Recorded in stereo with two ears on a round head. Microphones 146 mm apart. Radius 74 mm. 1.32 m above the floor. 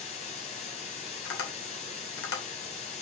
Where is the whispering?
No whispering in this recording.